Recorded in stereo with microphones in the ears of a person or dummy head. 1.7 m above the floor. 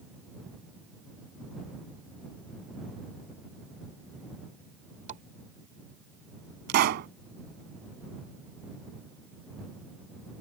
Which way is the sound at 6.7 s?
55° right (ahead or behind).